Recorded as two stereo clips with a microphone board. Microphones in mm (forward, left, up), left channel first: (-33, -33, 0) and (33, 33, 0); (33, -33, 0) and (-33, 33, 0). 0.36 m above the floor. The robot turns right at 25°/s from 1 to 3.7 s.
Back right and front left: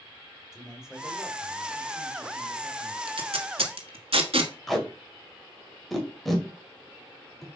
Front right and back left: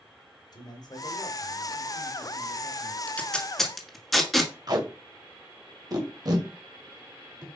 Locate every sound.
0.5 s a man speaking: 40° right, 2 m; by 3.0 s 10° left, 2 m
3.1 s tape being pulled: 30° left, 1.5 m; by 4.5 s 45° left, 1.5 m
4.7 s tape being pulled: 140° left, 1.9 m